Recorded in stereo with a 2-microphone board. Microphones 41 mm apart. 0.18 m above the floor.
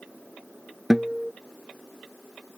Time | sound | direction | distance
0.9 | a guitar | 5° right (ahead or behind) | ?